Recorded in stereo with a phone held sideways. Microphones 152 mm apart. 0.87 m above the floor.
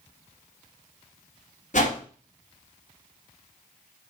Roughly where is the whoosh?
Left.